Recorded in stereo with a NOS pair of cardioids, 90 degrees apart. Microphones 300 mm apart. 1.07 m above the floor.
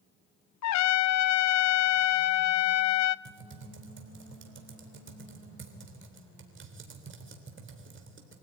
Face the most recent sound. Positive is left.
turn(degrees=-40)